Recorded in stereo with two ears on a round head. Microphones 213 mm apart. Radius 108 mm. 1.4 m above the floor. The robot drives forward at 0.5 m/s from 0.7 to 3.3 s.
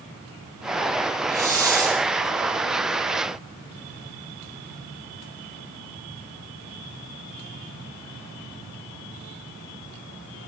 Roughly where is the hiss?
Centre.